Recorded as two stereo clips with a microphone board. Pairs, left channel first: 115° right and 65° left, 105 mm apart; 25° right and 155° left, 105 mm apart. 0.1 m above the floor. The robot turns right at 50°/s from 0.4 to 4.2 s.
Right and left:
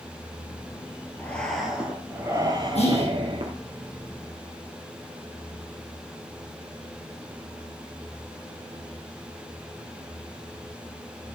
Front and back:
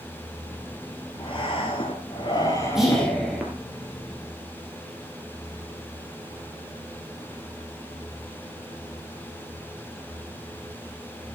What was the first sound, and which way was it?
Breathing, 40° right.